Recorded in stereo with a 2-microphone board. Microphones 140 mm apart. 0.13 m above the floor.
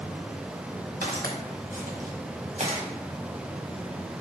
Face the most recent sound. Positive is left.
turn(degrees=-45)  # may be behind; listen again after turning